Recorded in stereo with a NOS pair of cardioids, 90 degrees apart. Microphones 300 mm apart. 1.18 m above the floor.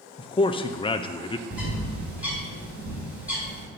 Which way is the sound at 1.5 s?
5° right.